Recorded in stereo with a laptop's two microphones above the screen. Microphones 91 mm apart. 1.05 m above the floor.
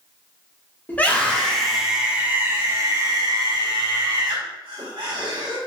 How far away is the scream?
About 1.8 m.